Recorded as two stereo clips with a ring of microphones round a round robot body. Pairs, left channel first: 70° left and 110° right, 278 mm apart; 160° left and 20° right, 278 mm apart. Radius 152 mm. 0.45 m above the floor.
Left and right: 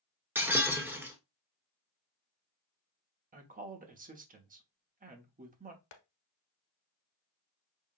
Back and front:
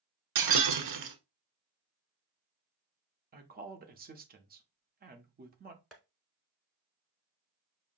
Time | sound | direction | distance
0.3 | breaking glass | 30° right | 0.9 m
3.3 | a woman speaking | 65° right | 0.9 m
5.9 | tapping | 70° left | 1.0 m